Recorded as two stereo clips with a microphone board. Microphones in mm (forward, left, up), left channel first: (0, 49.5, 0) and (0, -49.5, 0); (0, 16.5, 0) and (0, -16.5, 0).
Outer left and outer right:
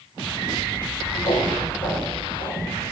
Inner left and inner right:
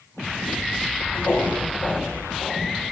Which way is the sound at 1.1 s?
70° left (ahead or behind).